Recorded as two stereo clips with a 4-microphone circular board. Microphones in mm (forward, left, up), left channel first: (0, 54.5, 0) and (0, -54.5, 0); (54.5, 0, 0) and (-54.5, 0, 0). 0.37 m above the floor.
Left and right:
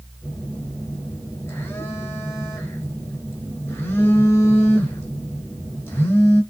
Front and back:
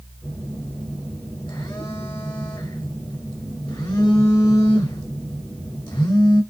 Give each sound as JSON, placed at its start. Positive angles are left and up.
{"t": 0.2, "sound": "a phone buzzing", "azimuth_deg": 30, "distance_m": 1.7}